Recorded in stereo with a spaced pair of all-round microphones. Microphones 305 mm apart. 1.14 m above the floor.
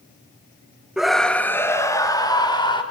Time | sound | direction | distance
1.0 | a scream | centre (ahead or behind) | 1.6 m